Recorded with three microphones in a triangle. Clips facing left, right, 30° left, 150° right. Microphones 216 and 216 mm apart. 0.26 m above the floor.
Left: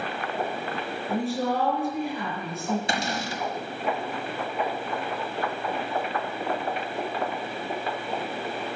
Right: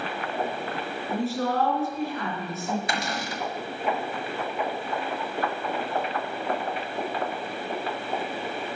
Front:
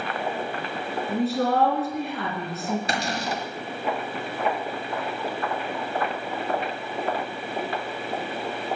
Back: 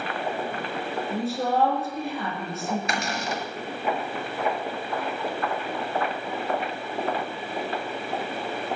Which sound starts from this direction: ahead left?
A cupboard door, at 2.9 s.